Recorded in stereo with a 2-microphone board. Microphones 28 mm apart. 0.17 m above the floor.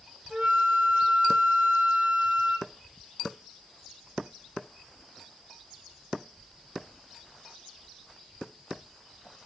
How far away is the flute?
About 0.7 m.